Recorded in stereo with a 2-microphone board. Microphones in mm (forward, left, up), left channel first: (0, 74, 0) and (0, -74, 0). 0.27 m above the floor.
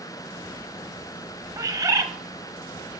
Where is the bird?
25° right (ahead or behind), 0.7 m.